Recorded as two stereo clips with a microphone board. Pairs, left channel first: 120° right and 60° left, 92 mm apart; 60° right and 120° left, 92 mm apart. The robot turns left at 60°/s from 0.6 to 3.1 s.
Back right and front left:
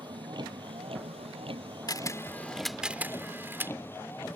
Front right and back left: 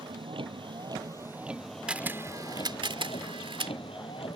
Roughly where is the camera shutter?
Behind.